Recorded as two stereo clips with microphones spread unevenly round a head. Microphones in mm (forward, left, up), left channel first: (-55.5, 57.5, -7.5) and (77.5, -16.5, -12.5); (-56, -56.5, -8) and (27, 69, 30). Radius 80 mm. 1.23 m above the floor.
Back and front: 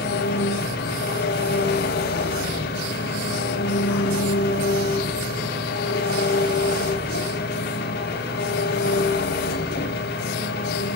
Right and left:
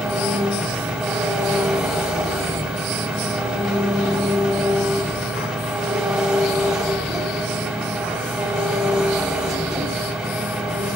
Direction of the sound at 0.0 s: 140° left.